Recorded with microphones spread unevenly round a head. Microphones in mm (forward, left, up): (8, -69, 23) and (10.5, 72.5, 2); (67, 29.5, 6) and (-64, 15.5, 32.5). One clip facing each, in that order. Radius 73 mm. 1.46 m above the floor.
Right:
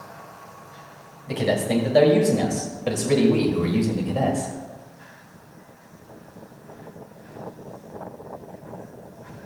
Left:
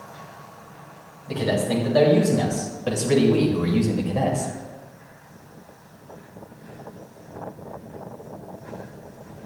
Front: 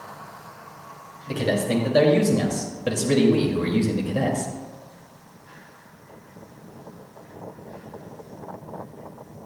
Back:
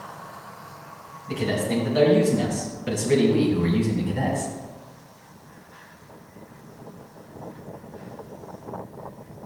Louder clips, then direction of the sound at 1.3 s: Right 1 dB, front 2 dB; 25° right.